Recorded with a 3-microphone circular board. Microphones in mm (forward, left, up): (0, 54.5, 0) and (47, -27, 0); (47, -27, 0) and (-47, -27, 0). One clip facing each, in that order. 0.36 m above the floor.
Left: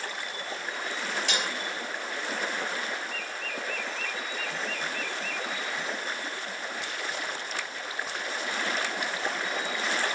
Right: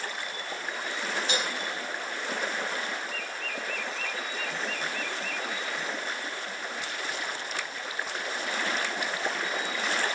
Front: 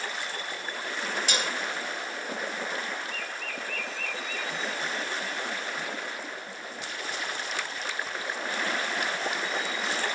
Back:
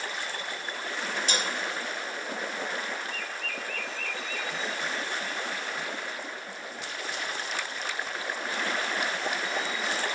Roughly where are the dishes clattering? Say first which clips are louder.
Right 1 dB, back 1 dB; behind left.